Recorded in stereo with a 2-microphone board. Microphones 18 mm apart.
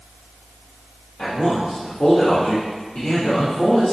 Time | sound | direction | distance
1.2 | a man speaking | 85° left | 1.7 m